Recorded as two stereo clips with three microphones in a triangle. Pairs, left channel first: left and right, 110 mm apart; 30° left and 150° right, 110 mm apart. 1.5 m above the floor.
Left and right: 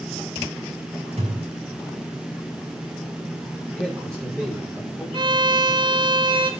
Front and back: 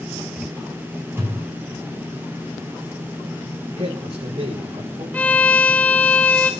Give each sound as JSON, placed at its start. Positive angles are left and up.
{"t": 1.2, "sound": "a thud", "azimuth_deg": -80, "distance_m": 6.0}
{"t": 3.8, "sound": "a man speaking", "azimuth_deg": 180, "distance_m": 6.5}
{"t": 5.1, "sound": "a violin", "azimuth_deg": -45, "distance_m": 1.9}